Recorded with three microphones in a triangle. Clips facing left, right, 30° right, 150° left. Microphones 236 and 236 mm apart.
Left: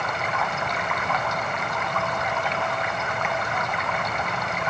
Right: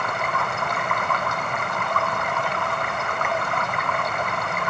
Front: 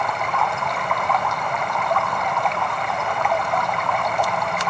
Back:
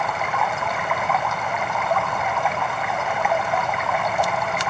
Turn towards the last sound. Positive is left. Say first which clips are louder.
# right 1 dB, front 1 dB
turn(degrees=-125)